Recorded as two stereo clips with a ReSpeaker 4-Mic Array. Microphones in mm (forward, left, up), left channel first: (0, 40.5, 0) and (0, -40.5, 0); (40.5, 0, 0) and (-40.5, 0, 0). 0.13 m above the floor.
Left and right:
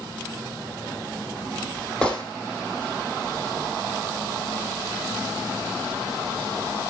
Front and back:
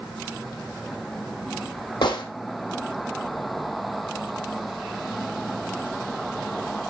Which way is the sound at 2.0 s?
10° left.